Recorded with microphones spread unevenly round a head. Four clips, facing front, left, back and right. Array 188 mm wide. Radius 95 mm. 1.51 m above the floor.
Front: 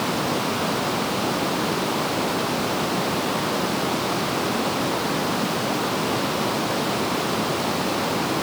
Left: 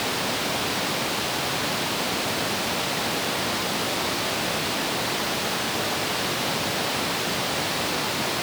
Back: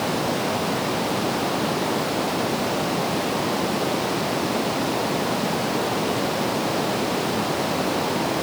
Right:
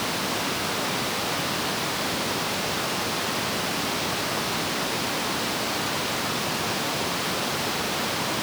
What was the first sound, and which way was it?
Only background noise.